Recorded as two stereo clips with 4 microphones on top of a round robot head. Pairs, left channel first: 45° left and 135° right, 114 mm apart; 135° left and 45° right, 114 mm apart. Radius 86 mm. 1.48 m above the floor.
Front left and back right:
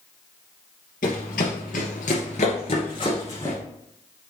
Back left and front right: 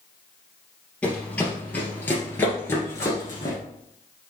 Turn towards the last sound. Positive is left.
turn(degrees=100)